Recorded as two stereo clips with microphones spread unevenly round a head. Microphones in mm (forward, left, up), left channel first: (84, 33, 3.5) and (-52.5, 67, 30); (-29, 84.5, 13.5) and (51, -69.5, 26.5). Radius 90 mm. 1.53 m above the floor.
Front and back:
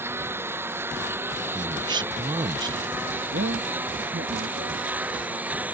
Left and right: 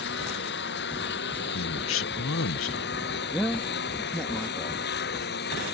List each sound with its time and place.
0.0 s a lawn mower: 95° left; by 5.8 s 90° left
1.5 s a man speaking: 110° left
3.3 s a man speaking: 160° right